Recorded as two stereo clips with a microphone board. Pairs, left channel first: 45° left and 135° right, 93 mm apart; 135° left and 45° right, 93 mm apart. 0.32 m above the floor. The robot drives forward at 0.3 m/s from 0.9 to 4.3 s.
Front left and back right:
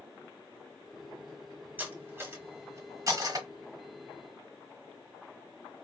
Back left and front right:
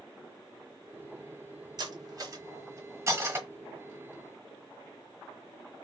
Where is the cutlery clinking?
70° right, 1.0 m; by 3.5 s 105° right, 1.0 m.